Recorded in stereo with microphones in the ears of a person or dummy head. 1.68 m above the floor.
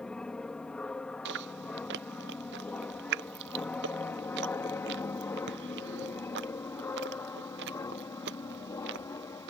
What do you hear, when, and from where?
0.0 s an aircraft: 5° right (ahead or behind); by 9.5 s 10° left (ahead or behind)
1.2 s chewing: 50° right (ahead or behind)